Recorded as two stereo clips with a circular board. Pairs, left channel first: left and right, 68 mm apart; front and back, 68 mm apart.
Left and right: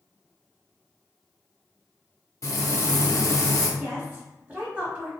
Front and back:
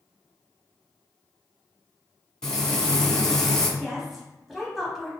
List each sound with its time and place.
2.4 s frying: 80° left, 0.7 m
3.8 s a woman speaking: 90° right, 1.0 m